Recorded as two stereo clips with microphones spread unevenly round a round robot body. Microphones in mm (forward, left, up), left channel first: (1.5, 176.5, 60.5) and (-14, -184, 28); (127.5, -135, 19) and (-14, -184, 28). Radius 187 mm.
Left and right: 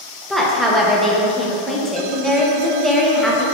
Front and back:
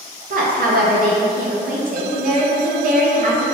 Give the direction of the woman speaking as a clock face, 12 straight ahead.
6 o'clock.